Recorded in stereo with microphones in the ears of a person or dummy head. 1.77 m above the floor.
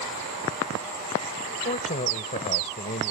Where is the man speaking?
35° left (ahead or behind).